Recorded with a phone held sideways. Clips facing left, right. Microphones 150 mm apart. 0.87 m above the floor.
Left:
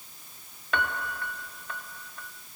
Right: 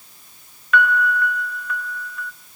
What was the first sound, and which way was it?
A piano, 30° left (ahead or behind).